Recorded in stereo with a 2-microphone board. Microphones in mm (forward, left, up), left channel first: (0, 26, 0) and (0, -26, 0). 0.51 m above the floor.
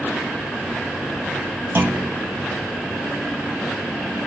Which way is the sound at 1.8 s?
50° right (ahead or behind).